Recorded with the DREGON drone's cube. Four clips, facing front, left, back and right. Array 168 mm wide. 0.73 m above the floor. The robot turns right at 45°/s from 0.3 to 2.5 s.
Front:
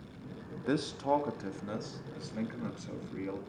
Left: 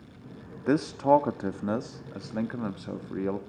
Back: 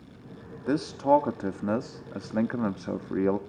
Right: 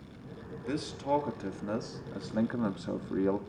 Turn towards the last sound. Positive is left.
turn(degrees=180)